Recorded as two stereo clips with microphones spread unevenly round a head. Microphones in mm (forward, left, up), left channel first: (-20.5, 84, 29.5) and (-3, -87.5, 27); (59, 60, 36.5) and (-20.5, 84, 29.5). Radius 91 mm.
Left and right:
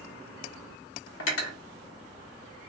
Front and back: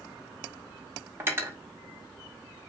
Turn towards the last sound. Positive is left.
turn(degrees=100)